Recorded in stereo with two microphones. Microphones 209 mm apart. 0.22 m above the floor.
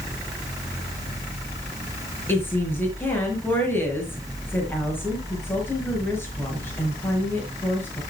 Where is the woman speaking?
10° left (ahead or behind), 4.5 m.